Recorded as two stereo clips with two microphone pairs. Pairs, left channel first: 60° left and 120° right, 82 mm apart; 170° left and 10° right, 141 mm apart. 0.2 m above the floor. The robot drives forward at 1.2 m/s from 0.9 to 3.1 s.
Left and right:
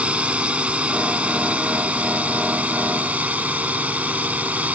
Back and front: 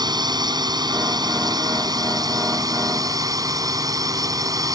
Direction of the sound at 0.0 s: 55° right.